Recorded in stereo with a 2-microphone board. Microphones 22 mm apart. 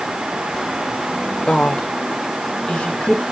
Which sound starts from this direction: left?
A woman speaking, at 1.5 s.